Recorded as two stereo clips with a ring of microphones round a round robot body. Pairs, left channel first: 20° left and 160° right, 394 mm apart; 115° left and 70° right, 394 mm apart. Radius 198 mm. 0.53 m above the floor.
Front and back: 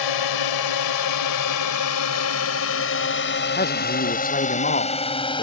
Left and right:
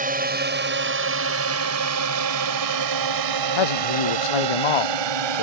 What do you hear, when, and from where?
0.0 s a drone: straight ahead; by 5.4 s 55° right
3.6 s a man speaking: 90° left